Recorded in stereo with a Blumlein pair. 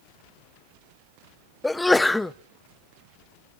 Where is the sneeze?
5° left, 0.6 m.